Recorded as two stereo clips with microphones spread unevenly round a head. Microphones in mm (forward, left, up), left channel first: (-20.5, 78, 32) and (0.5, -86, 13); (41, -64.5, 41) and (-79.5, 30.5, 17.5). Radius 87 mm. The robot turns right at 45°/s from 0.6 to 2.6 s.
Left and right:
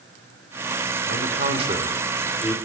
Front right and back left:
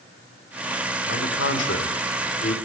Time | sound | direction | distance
1.1 | a man speaking | 45° right | 4.5 m